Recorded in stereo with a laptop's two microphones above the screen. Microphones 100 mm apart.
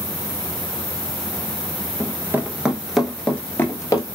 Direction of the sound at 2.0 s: 30° right (ahead or behind).